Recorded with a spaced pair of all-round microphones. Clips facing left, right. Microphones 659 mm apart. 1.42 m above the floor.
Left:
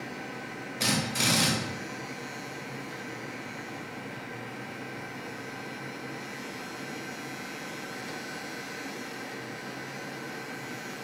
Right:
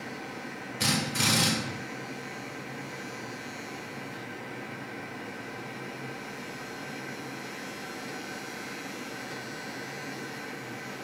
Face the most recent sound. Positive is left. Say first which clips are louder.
# even
turn(degrees=-40)  # may be behind; listen again after turning